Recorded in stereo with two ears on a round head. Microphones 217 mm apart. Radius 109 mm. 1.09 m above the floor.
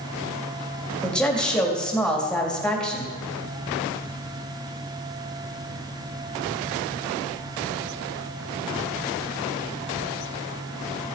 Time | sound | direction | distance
1.0 | a woman speaking | 5° left (ahead or behind) | 2 m